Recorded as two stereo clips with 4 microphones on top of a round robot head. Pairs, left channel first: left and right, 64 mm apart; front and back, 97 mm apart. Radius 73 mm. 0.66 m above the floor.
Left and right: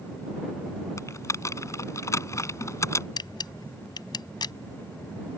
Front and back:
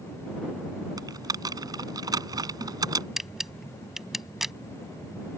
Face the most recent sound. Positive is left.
turn(degrees=90)